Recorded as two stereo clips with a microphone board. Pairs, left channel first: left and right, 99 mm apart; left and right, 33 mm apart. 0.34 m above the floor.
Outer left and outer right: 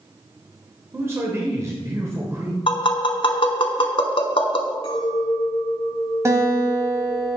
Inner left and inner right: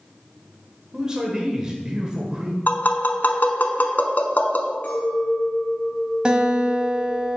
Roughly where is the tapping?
Left.